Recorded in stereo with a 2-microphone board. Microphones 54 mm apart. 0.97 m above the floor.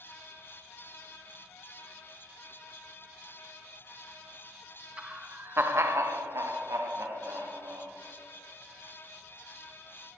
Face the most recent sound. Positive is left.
turn(degrees=-65)  # may be behind; listen again after turning